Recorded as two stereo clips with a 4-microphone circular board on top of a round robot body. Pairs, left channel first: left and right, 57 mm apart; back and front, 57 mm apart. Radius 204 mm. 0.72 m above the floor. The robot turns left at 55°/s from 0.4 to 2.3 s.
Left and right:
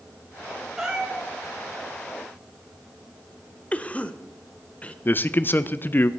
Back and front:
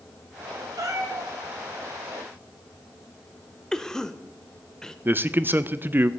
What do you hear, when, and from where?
0.8 s a cat meowing: 10° right, 2 m; by 1.3 s 35° right, 2 m
3.7 s a cough: 115° left, 1.1 m
5.0 s a man speaking: 45° left, 0.6 m